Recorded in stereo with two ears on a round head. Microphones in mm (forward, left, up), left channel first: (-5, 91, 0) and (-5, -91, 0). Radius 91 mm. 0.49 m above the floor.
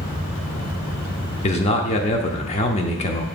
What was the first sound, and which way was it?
A man speaking, 30° left (ahead or behind).